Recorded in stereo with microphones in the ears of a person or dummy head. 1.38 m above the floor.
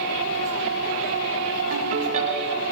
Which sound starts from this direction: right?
A ringtone, at 1.7 s.